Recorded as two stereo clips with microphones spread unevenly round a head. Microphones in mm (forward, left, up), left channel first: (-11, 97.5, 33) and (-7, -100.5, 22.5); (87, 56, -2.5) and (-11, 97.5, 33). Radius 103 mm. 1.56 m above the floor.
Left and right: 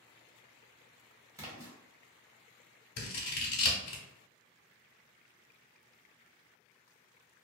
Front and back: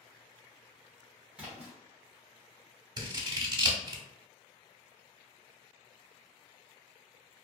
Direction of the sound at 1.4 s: 160° right.